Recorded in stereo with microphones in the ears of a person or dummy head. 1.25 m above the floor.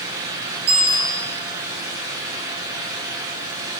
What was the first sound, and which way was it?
A bicycle bell, 35° right (ahead or behind).